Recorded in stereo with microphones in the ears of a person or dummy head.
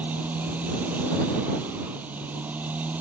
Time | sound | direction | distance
0.0 | a motorcycle | 10° right (ahead or behind) | ?